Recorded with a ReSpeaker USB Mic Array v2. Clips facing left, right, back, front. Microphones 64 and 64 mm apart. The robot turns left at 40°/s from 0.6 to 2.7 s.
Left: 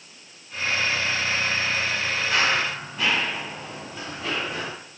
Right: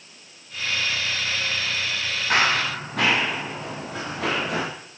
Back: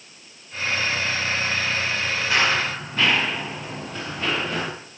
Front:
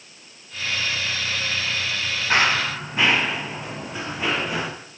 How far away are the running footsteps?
About 6 m.